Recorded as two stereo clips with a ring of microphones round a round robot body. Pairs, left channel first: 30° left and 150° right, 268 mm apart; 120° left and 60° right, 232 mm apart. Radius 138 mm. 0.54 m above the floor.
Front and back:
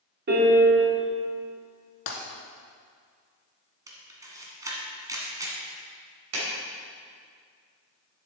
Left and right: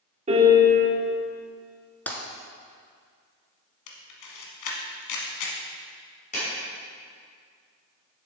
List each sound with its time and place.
0.3 s a piano: 115° right, 1.6 m
2.1 s breaking glass: 35° left, 1.3 m
3.9 s a camera shutter: 130° left, 1.3 m
6.3 s a clap: 175° right, 3 m